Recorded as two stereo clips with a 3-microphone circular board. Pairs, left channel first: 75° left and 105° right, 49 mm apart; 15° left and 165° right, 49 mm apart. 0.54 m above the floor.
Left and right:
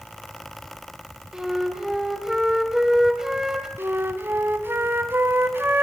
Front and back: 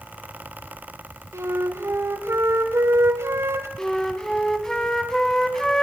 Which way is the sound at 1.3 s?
175° left.